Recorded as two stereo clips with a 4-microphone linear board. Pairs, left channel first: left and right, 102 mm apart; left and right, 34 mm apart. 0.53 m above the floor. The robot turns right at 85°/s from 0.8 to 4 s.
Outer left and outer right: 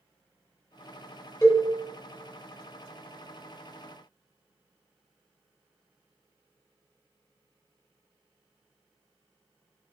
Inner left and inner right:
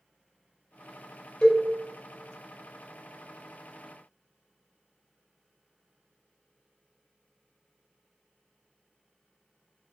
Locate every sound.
1.4 s a cowbell: 20° left (ahead or behind), 1.8 m; by 1.7 s 40° left (ahead or behind), 1.8 m